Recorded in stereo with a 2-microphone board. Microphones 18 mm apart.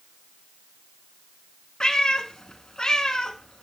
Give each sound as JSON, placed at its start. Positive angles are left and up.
{"t": 1.8, "sound": "a cat meowing", "side_deg": 40, "distance_m": 1.1}